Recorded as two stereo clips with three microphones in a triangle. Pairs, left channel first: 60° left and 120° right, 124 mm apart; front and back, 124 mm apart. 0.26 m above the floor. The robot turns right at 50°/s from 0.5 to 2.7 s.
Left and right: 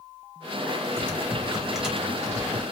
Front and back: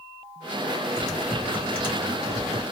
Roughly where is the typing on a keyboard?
Right.